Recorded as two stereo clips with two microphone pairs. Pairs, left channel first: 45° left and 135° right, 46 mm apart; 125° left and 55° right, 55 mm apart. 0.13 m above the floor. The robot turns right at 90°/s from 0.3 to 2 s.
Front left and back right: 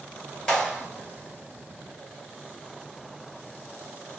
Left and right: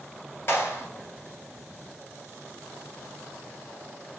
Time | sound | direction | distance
0.5 | a clap | 120° left | 1.9 m